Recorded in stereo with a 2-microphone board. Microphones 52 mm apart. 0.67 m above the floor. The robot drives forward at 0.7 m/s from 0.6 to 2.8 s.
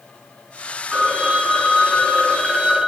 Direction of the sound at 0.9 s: 5° right (ahead or behind).